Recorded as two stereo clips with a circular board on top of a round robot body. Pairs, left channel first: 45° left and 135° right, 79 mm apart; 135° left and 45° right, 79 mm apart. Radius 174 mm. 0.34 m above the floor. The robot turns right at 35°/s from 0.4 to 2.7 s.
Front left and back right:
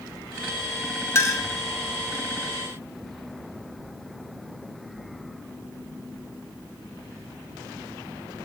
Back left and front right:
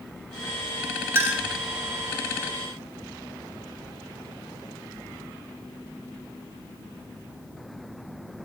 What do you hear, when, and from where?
1.1 s a clink: 5° left, 0.9 m; by 1.5 s 15° left, 0.9 m